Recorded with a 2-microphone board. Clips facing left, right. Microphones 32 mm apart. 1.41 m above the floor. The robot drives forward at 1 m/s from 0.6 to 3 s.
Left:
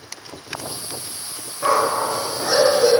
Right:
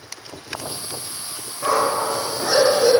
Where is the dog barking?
15° left (ahead or behind), 0.9 m; by 2.9 s 5° left (ahead or behind), 1.9 m.